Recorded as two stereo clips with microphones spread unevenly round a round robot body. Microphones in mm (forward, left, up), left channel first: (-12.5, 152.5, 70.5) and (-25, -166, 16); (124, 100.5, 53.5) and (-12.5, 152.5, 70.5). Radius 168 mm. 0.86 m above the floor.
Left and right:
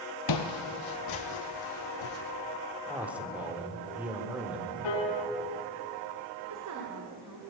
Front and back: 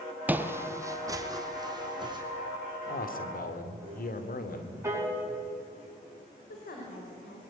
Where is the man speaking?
10° right, 3 m.